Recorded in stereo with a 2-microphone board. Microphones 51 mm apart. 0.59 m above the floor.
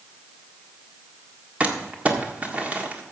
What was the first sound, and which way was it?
Crumpling, 30° right (ahead or behind).